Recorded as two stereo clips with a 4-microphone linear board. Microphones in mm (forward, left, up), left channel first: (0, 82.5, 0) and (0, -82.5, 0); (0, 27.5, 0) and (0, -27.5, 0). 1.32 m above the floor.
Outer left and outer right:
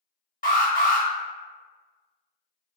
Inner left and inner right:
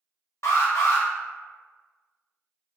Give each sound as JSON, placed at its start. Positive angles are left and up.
{"t": 0.4, "sound": "an alarm", "side_deg": 60, "distance_m": 1.2}